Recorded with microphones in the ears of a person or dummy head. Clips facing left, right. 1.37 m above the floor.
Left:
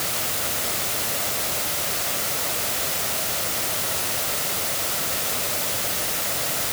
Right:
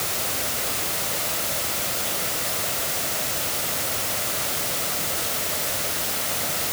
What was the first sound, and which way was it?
Only background noise.